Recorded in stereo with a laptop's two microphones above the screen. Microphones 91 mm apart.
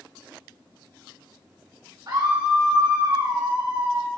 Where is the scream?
65° right (ahead or behind), 2.5 m.